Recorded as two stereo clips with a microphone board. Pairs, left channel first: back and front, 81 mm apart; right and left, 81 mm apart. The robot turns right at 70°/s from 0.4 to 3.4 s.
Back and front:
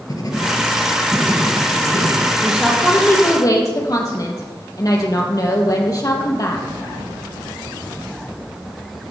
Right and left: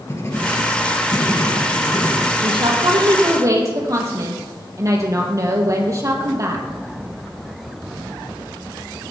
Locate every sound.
0.1 s writing: 140° right, 2.5 m; by 2.3 s 10° right, 2.5 m
2.4 s a woman speaking: 70° left, 3.5 m; by 6.6 s 140° left, 3.5 m